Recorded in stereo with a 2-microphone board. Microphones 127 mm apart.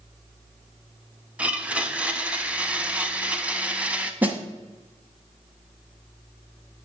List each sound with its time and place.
1.4 s a blender: 10° right (ahead or behind), 0.5 m
4.2 s a snare drum: 15° right (ahead or behind), 0.7 m